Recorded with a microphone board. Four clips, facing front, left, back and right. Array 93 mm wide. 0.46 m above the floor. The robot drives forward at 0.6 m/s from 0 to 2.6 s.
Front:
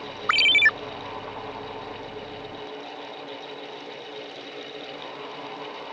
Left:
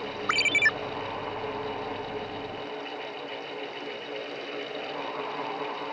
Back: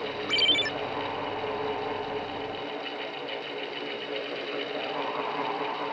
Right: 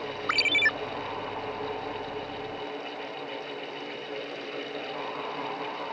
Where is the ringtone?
10° left; by 0.7 s 15° left.